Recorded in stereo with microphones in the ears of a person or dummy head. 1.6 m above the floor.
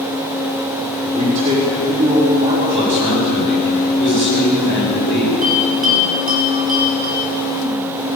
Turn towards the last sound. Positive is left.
turn(degrees=-40)  # may be behind; listen again after turning